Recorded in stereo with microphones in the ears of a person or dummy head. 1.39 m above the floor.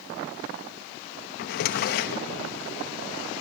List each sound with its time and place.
1.4 s a drawer: 55° left (ahead or behind), 1.0 m